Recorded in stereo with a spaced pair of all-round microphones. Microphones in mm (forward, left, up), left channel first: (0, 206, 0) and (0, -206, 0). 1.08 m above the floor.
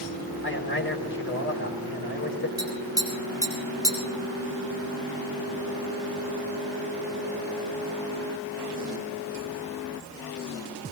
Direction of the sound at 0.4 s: 30° left (ahead or behind).